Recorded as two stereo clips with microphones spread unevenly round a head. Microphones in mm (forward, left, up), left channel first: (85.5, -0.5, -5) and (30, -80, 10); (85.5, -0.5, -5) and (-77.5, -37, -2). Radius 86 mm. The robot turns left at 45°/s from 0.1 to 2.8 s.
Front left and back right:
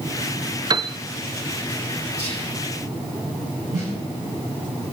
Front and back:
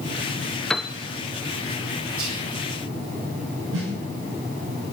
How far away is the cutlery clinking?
I don't hear cutlery clinking.